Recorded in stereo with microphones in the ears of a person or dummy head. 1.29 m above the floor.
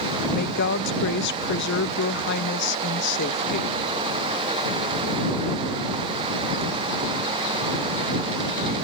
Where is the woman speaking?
60° left (ahead or behind).